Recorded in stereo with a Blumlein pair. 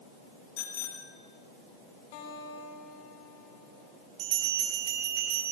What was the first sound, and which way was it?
A bicycle bell, 50° left.